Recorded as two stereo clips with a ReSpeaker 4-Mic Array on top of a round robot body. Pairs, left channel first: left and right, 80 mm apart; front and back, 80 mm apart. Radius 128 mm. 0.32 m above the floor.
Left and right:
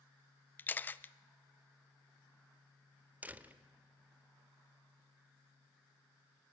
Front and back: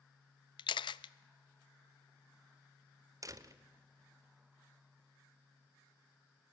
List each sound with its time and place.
0.6 s a camera shutter: 25° left, 0.5 m
3.2 s a door slam: 155° right, 1.3 m